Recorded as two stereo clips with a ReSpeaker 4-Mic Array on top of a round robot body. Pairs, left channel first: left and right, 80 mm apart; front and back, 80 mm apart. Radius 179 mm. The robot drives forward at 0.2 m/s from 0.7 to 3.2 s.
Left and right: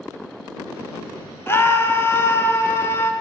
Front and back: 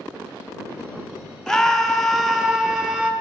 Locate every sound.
1.5 s a scream: 80° left, 1.3 m; by 3.1 s 110° left, 1.3 m